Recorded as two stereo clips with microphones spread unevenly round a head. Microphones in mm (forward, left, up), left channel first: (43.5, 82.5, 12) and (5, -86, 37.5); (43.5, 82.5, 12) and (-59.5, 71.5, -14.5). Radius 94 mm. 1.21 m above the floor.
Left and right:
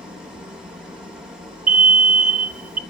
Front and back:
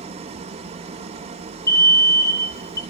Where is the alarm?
70° right, 1.4 m.